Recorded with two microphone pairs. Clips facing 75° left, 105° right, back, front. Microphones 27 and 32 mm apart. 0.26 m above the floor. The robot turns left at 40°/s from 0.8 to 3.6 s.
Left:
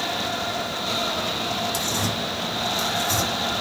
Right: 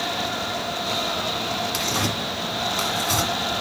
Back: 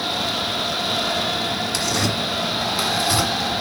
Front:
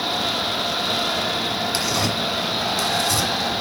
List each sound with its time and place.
1.7 s tearing paper: 70° right, 1.6 m; by 3.3 s 135° right, 1.6 m